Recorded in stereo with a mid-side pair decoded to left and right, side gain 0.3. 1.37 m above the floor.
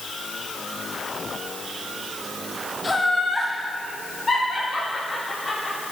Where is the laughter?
30° left, 0.8 m; by 5.8 s 40° left, 2.5 m.